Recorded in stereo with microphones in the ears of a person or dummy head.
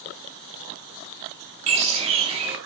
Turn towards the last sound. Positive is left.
turn(degrees=-30)  # may be behind; listen again after turning